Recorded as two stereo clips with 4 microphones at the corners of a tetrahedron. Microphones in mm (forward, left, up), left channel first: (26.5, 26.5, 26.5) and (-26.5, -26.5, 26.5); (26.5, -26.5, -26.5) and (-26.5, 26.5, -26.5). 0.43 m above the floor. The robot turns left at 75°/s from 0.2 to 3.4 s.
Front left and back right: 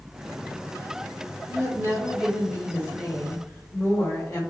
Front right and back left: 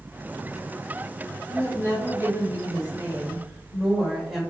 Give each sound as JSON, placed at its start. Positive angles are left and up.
{"t": 1.5, "sound": "a woman speaking", "azimuth_deg": -160, "distance_m": 1.4}